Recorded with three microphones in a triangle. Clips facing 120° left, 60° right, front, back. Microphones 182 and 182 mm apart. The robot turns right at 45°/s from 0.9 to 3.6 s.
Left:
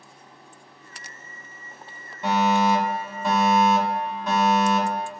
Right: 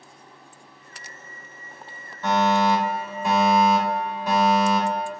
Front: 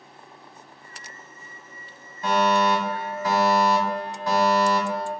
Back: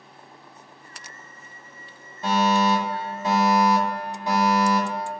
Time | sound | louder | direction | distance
2.2 | a fire alarm | even, even | 165° left | 1.6 m